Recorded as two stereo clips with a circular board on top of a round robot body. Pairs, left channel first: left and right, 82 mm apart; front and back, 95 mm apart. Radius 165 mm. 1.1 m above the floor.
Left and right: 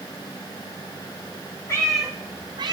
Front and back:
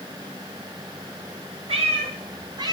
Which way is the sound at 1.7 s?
155° left.